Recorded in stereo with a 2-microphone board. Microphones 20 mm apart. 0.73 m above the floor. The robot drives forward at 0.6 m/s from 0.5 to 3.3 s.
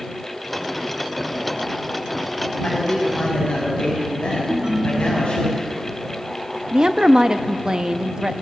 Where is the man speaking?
80° left, 5.5 m.